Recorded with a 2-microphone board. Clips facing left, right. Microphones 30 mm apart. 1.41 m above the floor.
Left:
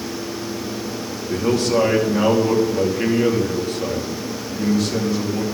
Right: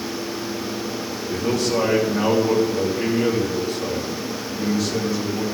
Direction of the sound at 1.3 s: 60° left (ahead or behind).